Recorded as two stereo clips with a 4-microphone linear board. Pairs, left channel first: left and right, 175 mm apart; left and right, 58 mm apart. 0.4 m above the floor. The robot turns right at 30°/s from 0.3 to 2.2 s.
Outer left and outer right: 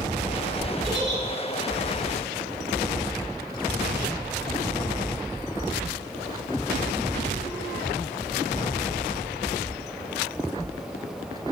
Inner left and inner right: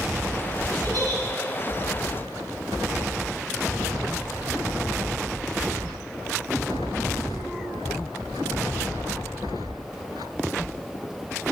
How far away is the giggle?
About 4.5 m.